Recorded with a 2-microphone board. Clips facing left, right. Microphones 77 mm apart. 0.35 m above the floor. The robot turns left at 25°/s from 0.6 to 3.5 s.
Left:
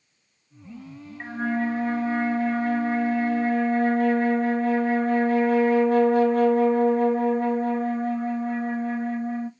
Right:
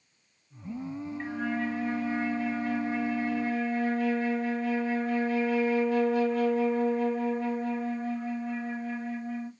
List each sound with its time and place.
1.2 s a flute: 140° left, 0.5 m; by 9.5 s 85° left, 0.5 m